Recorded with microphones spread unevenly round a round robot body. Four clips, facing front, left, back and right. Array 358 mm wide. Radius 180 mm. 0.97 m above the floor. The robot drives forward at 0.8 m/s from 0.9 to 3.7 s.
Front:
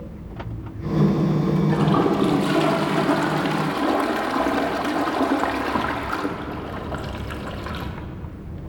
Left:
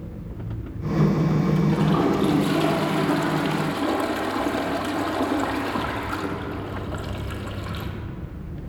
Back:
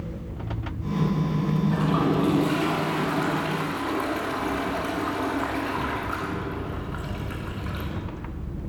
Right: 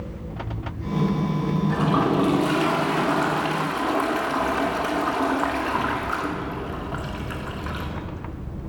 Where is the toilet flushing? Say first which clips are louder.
Right 2 dB, front 4 dB; 5° left, 3 m.